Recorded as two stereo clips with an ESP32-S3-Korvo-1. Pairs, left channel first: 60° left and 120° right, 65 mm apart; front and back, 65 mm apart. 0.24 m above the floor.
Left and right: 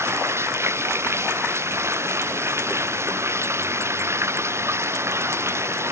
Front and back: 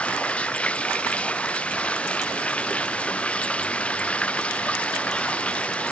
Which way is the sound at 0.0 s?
70° right.